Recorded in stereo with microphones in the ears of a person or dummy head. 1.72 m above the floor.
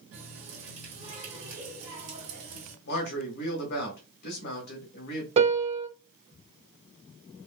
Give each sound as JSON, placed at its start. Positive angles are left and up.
{"t": 0.1, "sound": "a running tap", "side_deg": -60, "distance_m": 2.0}
{"t": 2.9, "sound": "a man speaking", "side_deg": 55, "distance_m": 1.2}
{"t": 5.4, "sound": "a piano", "side_deg": -35, "distance_m": 0.7}